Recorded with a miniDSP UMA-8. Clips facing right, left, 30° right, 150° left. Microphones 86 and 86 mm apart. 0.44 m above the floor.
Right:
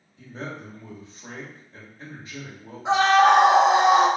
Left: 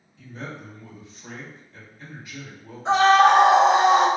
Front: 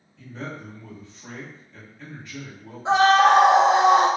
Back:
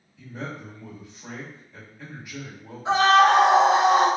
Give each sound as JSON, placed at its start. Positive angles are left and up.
{"t": 0.2, "sound": "a man speaking", "azimuth_deg": -135, "distance_m": 1.2}
{"t": 2.9, "sound": "a scream", "azimuth_deg": -25, "distance_m": 0.8}